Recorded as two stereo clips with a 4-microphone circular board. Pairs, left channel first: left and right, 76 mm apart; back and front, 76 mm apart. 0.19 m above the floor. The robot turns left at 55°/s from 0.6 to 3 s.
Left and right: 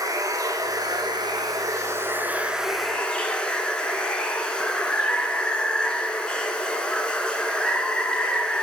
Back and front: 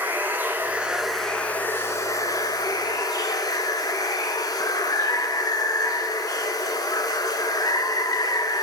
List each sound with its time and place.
0.0 s running water: 60° right, 1.4 m; by 8.7 s 165° left, 1.4 m